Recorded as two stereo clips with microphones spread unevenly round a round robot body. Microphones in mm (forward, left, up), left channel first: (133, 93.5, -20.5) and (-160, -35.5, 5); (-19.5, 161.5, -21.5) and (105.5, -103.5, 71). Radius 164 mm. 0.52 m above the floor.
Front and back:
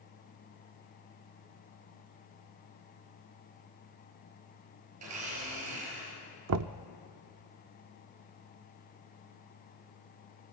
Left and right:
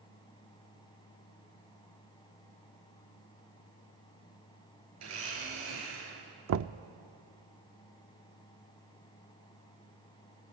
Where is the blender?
110° right, 8 m.